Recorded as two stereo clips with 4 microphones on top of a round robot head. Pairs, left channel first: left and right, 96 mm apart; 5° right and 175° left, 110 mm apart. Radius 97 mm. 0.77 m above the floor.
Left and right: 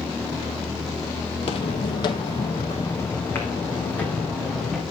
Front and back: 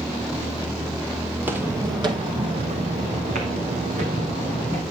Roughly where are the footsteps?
Left.